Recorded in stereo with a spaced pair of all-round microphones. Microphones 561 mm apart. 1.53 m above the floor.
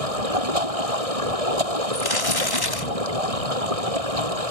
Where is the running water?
85° right.